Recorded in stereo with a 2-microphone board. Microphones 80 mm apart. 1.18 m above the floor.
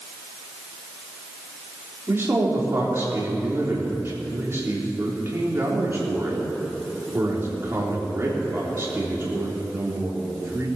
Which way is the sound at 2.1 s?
35° right (ahead or behind).